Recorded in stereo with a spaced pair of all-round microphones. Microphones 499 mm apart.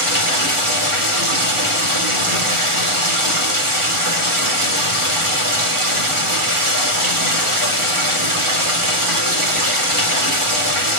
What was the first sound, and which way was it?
Running water, 80° right.